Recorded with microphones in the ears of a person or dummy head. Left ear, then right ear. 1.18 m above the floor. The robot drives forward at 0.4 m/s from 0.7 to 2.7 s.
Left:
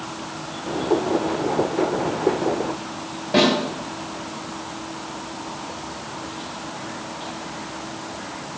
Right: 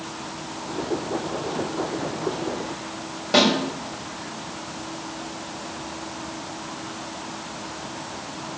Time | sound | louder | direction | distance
3.3 | a snare drum | even | 85° right | 5.5 m